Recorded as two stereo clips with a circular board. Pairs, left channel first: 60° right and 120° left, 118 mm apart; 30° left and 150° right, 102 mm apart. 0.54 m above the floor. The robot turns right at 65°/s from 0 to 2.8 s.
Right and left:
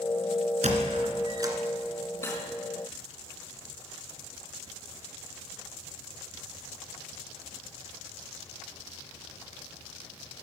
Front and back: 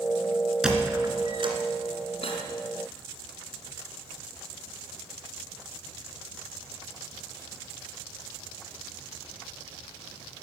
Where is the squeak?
125° left, 2.5 m; by 1.6 s 175° right, 2.5 m.